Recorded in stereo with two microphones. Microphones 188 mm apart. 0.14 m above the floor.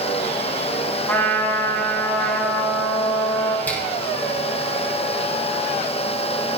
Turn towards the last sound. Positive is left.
turn(degrees=10)  # may be behind; listen again after turning